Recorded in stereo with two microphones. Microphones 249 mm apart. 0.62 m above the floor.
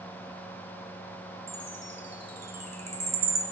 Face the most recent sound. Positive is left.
turn(degrees=-80)